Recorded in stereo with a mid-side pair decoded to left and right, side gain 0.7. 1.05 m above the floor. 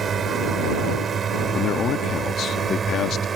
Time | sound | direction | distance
0.0 | a drone | 35° right | ?
1.5 | a man speaking | 40° left | ?